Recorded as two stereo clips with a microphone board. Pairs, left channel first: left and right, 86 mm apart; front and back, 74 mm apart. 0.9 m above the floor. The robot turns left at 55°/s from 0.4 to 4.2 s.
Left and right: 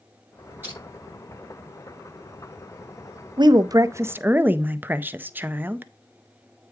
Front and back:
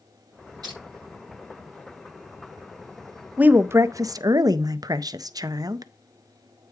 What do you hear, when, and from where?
0.6 s crushing: 155° right, 7 m; by 0.8 s 165° right, 7 m
3.4 s a woman speaking: 110° right, 0.6 m; by 5.9 s 155° right, 0.6 m